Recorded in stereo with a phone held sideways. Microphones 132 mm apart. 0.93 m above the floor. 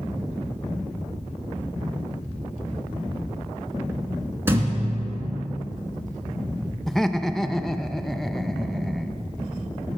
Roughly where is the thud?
Centre.